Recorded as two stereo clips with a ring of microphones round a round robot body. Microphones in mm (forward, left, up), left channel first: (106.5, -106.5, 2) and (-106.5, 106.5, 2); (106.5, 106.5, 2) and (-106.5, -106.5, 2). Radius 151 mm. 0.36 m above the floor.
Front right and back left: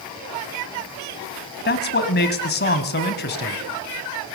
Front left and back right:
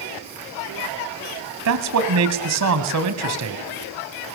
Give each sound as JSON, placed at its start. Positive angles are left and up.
{"t": 1.6, "sound": "a man speaking", "azimuth_deg": -100, "distance_m": 2.0}